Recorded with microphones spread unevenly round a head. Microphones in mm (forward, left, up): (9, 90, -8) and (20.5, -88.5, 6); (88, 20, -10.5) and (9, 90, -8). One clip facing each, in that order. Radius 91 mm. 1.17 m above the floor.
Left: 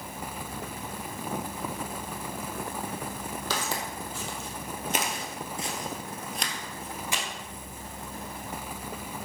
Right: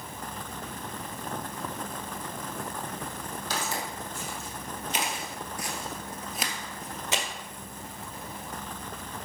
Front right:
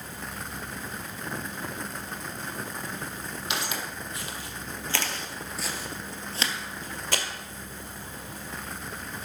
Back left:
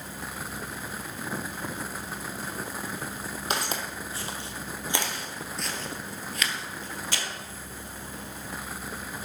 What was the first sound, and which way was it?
Footsteps, 100° left.